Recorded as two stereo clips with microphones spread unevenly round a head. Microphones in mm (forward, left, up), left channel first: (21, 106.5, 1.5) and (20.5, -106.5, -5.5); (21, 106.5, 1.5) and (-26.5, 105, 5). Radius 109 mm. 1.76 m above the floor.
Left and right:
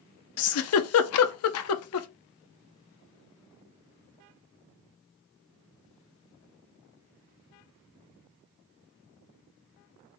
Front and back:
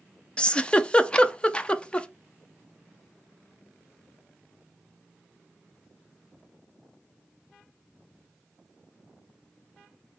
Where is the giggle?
75° left, 0.6 m.